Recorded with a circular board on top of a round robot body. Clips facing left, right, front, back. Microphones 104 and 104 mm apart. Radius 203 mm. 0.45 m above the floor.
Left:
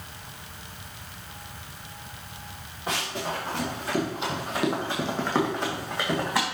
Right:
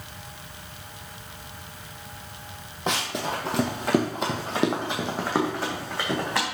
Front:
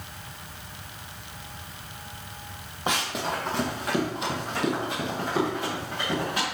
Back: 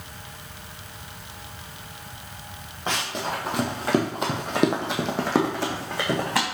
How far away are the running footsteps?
About 1.2 m.